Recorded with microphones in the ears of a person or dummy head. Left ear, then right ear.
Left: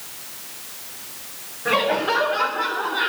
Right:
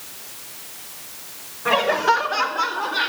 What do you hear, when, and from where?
1.6 s laughter: 35° right (ahead or behind), 1.4 m; by 3.1 s 85° right, 2 m